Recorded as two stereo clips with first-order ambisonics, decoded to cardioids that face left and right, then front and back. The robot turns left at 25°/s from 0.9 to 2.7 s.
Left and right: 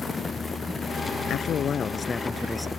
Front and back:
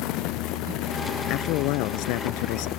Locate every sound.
1.3 s a man speaking: 35° left; by 2.7 s straight ahead